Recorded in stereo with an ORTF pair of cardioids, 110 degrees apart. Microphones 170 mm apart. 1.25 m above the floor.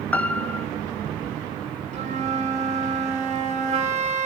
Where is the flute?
45° right, 4.5 m.